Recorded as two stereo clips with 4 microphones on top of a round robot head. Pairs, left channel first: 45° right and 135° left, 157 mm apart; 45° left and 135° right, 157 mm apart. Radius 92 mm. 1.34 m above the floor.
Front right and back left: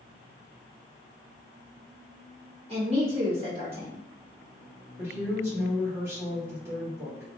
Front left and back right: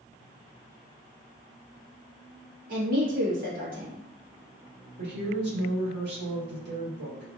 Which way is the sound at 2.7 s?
170° right.